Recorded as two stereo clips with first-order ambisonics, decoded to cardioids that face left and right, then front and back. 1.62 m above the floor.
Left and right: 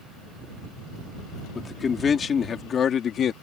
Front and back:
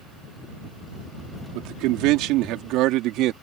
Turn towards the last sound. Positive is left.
turn(degrees=145)